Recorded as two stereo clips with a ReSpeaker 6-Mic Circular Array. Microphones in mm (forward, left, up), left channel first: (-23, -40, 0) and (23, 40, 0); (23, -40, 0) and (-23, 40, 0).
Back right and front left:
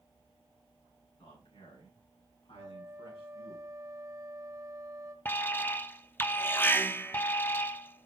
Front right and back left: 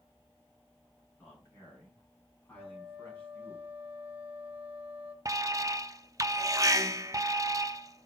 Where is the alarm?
170° left, 0.7 m.